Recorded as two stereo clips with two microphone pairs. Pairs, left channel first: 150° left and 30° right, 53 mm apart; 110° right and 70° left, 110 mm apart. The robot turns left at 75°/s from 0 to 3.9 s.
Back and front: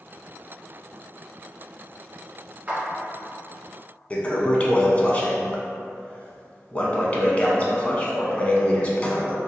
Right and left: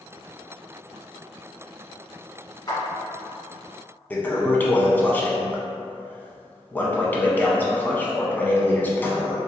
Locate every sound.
2.7 s a clap: 75° right, 1.6 m; by 2.8 s 85° right, 1.6 m
4.1 s a toilet flushing: 170° right, 0.6 m